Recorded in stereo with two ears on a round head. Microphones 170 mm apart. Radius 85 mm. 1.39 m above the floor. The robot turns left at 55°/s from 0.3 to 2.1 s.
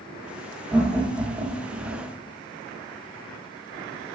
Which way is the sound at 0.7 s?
Centre (ahead or behind).